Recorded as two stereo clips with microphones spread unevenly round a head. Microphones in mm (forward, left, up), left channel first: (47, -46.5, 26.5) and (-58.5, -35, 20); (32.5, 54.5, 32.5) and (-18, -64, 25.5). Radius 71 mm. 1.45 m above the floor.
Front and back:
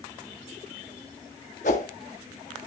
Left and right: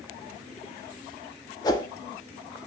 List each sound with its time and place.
1.6 s a whoosh: 5° left, 1.6 m